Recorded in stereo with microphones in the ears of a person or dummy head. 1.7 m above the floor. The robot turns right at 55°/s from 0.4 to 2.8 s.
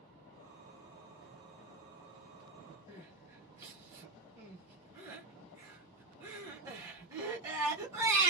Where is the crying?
20° right (ahead or behind), 1.1 m.